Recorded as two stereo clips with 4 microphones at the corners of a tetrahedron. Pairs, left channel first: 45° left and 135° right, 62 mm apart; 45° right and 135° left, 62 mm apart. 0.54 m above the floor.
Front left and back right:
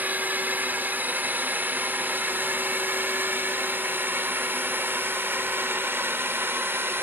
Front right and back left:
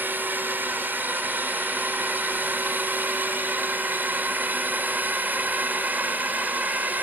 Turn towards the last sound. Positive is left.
turn(degrees=-175)